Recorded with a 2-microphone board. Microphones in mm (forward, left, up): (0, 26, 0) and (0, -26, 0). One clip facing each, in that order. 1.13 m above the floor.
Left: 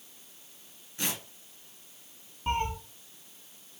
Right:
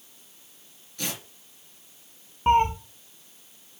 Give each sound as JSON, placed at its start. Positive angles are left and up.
{"t": 1.0, "sound": "tearing paper", "side_deg": 30, "distance_m": 2.5}
{"t": 2.5, "sound": "a cat meowing", "side_deg": -40, "distance_m": 0.7}